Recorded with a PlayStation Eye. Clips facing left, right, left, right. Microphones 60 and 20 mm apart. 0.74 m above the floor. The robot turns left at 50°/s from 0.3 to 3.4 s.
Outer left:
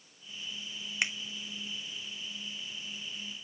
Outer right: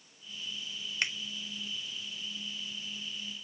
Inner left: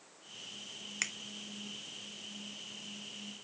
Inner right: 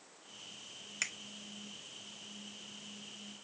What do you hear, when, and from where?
1.0 s a finger snap: 15° left (ahead or behind), 0.9 m; by 1.1 s 20° left (ahead or behind), 0.9 m